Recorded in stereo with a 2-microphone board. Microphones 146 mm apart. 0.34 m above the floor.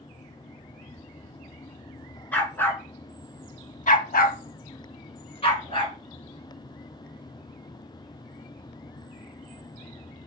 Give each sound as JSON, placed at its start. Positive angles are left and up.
{"t": 2.3, "sound": "a dog barking", "side_deg": 10, "distance_m": 1.1}